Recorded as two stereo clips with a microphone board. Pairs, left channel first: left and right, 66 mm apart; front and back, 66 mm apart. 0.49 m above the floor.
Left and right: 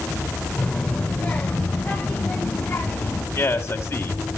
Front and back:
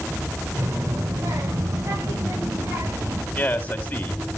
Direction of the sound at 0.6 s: 160° left.